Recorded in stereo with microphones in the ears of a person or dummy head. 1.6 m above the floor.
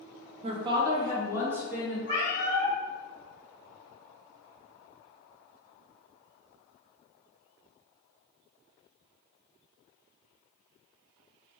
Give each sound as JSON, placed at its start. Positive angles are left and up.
{"t": 0.4, "sound": "a woman speaking", "side_deg": -40, "distance_m": 0.6}
{"t": 2.1, "sound": "a cat meowing", "side_deg": -50, "distance_m": 1.5}